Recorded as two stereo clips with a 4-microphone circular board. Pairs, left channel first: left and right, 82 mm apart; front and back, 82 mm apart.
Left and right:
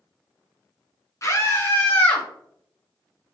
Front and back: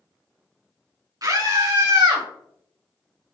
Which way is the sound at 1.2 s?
140° left.